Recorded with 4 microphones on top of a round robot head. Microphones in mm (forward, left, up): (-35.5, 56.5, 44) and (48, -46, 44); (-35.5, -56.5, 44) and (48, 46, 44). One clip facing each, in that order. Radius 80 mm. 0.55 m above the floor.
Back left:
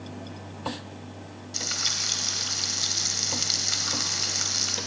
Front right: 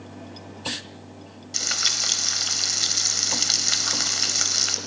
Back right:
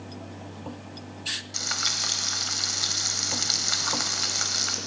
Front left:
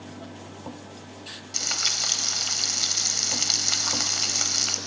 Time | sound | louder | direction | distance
1.5 | frying | front right 4 dB, even | 25° right | 1.4 m